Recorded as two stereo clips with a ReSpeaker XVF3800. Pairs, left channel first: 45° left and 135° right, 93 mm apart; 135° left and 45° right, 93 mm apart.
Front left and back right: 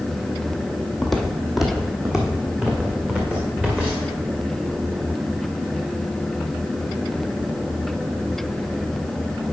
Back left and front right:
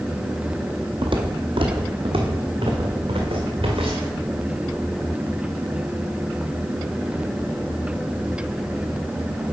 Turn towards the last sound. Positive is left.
turn(degrees=-55)